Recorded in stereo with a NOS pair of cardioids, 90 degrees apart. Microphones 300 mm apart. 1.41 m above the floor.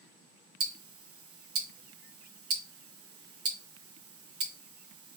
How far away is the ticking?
About 0.7 m.